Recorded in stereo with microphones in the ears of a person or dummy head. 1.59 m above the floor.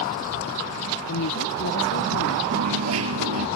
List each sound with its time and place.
1.1 s a woman speaking: 70° left (ahead or behind)
2.5 s a dropped coin: 80° right